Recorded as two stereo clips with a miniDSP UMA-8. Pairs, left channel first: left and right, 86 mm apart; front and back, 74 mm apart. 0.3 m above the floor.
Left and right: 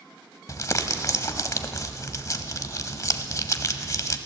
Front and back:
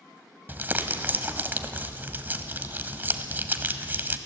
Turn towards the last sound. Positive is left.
turn(degrees=125)